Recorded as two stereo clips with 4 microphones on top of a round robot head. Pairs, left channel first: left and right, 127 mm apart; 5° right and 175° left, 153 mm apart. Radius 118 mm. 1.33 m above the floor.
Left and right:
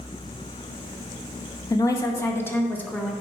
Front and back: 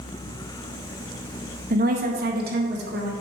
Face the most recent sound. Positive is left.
turn(degrees=170)